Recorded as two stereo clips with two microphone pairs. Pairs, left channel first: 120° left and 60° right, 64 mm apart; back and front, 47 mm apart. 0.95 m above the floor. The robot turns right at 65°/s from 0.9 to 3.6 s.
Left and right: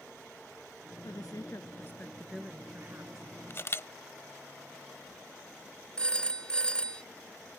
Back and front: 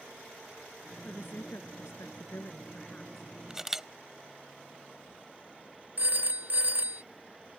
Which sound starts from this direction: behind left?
A woman speaking, at 1.0 s.